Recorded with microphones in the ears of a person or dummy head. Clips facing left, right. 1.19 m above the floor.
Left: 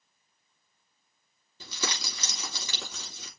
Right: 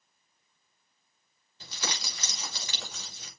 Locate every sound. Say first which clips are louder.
1.6 s crumpling: left 2 dB; 80° left, 3.5 m